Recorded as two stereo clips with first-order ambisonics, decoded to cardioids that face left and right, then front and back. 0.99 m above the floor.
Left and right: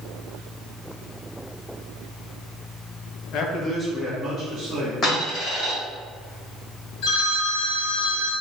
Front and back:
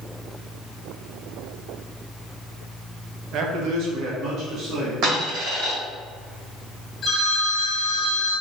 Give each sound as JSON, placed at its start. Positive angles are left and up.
{"t": 3.3, "sound": "a man speaking", "azimuth_deg": 135, "distance_m": 0.7}
{"t": 5.0, "sound": "a dropped coin", "azimuth_deg": 155, "distance_m": 1.9}
{"t": 7.0, "sound": "a phone ringing", "azimuth_deg": 65, "distance_m": 1.6}